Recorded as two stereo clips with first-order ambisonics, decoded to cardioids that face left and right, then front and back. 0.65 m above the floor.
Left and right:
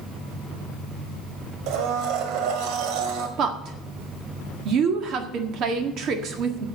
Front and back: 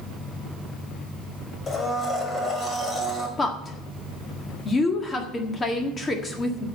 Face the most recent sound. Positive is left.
turn(degrees=-65)